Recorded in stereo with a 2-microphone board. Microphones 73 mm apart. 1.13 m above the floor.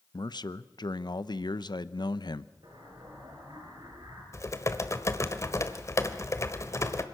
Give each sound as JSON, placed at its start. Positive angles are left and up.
{"t": 0.1, "sound": "a man speaking", "side_deg": 75, "distance_m": 0.7}
{"t": 2.6, "sound": "an explosion", "side_deg": -80, "distance_m": 6.0}
{"t": 4.3, "sound": "typing on a keyboard", "side_deg": 40, "distance_m": 1.3}